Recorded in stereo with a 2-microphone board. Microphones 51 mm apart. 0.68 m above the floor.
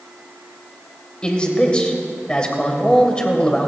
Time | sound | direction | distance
1.2 | a man speaking | 20° left (ahead or behind) | 2.5 m